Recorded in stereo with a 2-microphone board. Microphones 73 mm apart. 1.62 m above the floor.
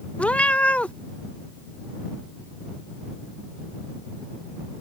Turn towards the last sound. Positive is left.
turn(degrees=20)  # may be behind; listen again after turning